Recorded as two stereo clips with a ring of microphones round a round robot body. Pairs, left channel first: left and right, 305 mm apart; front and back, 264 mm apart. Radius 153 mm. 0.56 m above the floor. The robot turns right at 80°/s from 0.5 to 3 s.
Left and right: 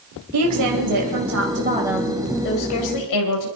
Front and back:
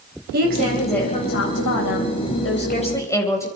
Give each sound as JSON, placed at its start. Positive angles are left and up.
{"t": 0.3, "sound": "a woman speaking", "azimuth_deg": -120, "distance_m": 3.5}